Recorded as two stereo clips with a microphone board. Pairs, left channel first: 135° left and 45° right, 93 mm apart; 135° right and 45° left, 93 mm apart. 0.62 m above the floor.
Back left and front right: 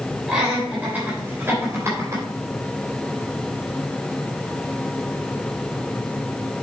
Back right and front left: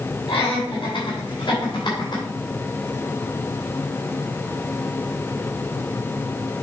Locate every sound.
0.3 s laughter: 125° right, 3 m; by 2.2 s 100° right, 3 m